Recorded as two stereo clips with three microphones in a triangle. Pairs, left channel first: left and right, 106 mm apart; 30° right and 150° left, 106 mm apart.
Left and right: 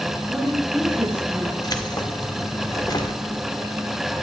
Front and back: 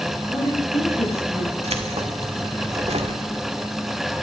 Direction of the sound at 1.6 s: 140° left.